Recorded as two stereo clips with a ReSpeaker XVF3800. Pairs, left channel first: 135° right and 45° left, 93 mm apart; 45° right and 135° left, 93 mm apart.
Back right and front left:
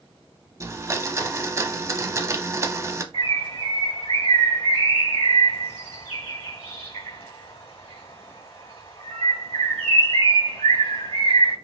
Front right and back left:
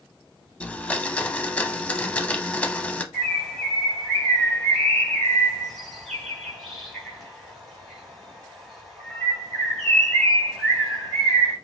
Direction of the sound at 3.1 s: 135° right.